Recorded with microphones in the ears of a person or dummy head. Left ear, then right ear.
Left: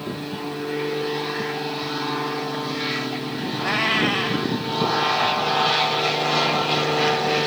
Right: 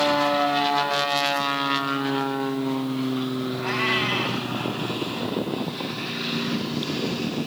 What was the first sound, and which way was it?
A cat meowing, 45° left (ahead or behind).